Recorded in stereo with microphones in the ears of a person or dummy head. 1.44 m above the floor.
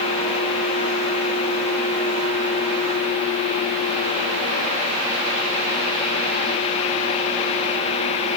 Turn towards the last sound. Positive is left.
No sound to turn to.